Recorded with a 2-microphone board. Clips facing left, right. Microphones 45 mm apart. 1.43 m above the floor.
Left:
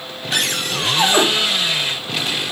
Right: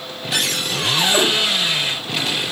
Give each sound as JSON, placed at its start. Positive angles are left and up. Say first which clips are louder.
{"t": 0.3, "sound": "a cupboard door", "louder": "left 1 dB", "side_deg": 50, "distance_m": 4.0}